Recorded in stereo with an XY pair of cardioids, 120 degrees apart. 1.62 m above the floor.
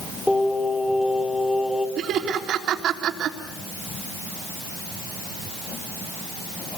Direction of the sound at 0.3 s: 5° left.